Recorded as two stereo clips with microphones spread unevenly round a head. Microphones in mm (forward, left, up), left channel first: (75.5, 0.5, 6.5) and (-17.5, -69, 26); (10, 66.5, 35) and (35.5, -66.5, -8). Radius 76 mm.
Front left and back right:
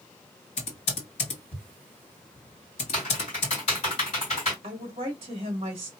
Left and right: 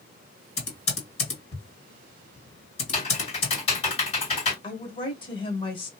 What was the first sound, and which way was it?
Typing on a keyboard, 85° left.